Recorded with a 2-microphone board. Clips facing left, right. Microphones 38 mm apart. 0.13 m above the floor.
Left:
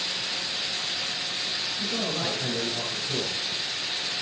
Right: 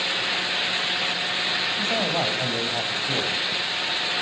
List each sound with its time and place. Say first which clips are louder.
1.8 s a man speaking: right 4 dB; 70° right (ahead or behind), 3 m